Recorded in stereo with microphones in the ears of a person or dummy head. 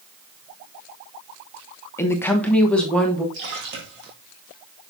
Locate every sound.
2.0 s a woman speaking: 10° left (ahead or behind), 0.8 m; by 3.2 s centre (ahead or behind), 1.5 m
3.3 s a splash: 70° right (ahead or behind), 1.7 m